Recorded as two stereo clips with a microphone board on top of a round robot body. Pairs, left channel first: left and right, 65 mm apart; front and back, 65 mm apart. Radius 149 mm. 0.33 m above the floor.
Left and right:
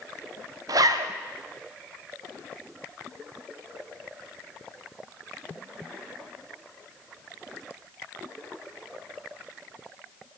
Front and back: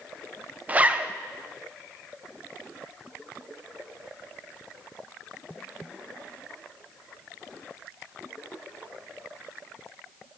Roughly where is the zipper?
Behind right.